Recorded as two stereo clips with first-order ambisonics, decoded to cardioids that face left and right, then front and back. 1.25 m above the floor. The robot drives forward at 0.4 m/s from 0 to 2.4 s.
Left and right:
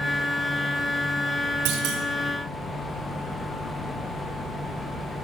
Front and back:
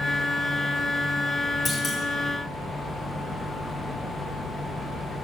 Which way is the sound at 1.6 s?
90° right.